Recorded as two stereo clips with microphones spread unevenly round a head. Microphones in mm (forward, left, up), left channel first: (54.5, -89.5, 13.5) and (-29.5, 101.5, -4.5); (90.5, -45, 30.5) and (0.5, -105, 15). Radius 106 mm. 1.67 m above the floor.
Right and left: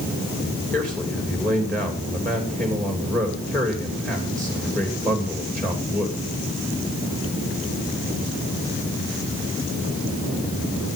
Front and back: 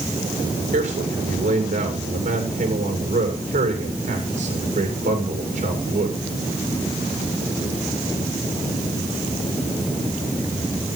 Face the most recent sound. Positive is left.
turn(degrees=-150)